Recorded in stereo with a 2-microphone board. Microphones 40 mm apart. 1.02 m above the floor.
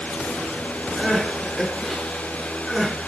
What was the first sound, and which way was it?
Crying, centre (ahead or behind).